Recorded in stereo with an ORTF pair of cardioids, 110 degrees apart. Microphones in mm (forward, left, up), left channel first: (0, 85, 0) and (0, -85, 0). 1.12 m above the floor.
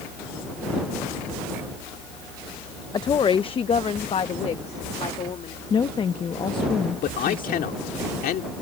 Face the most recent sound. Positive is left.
turn(degrees=60)